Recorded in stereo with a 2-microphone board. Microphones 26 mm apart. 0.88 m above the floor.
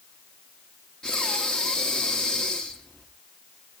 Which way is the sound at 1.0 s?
30° left (ahead or behind).